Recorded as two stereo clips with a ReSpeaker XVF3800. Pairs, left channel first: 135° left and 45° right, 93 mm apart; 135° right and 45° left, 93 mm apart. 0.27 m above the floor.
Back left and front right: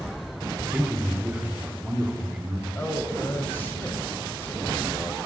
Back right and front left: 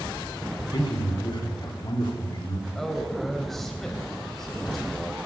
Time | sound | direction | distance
0.7 | a man speaking | 120° right | 1.9 m
2.8 | a man speaking | 145° left | 0.9 m